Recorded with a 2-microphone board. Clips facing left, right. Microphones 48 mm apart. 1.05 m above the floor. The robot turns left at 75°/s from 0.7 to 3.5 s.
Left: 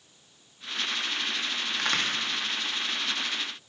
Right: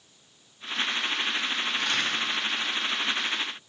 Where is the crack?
75° left (ahead or behind), 1.9 m; by 2.1 s 55° left (ahead or behind), 1.9 m.